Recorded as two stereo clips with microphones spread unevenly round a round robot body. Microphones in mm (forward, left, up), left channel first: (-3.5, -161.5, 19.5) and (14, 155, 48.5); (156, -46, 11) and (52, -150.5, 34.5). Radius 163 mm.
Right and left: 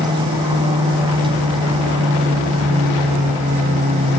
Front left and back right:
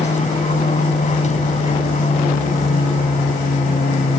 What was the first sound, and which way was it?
An aircraft, 10° left.